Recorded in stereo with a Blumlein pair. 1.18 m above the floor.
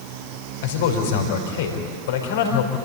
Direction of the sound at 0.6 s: 55° left.